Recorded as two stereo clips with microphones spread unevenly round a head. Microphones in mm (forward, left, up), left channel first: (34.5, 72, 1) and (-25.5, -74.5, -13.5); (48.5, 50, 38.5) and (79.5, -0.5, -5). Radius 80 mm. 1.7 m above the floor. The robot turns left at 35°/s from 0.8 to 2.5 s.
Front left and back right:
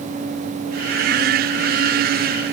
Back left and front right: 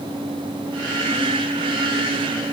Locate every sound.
Only background noise.